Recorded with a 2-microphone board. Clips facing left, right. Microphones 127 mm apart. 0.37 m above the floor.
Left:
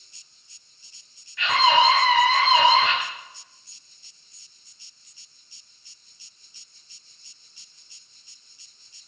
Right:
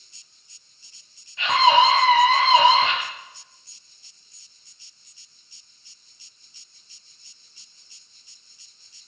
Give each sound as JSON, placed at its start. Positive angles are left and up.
{"t": 1.4, "sound": "a scream", "side_deg": -25, "distance_m": 3.0}